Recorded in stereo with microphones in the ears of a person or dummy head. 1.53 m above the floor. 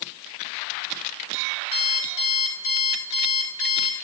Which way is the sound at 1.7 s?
80° left.